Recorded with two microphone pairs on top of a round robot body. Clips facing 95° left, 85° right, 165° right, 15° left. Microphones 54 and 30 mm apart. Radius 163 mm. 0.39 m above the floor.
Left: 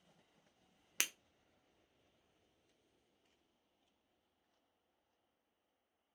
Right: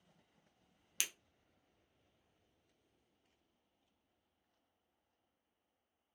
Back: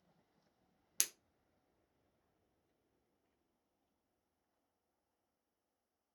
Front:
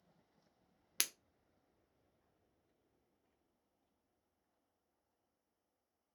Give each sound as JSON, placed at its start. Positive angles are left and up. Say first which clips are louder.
{"t": 1.0, "sound": "breaking glass", "louder": "left 3 dB, front 2 dB", "azimuth_deg": 70, "distance_m": 0.5}